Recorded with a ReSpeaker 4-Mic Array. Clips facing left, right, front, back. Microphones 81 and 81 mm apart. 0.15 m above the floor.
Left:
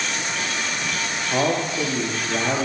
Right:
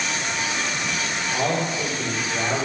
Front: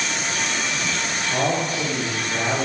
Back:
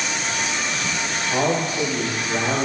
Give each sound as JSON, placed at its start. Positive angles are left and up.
{"t": 1.3, "sound": "a man speaking", "azimuth_deg": 105, "distance_m": 7.0}